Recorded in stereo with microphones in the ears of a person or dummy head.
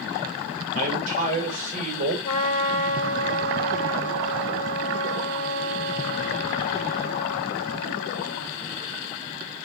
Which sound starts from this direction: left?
A trumpet, at 2.2 s.